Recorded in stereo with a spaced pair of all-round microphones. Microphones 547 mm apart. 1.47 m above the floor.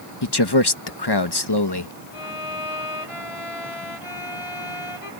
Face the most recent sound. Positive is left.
turn(degrees=70)  # may be behind; listen again after turning